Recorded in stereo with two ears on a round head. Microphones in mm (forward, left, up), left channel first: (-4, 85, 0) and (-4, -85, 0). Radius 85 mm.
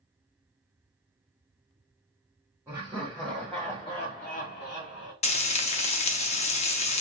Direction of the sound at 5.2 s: 35° left (ahead or behind).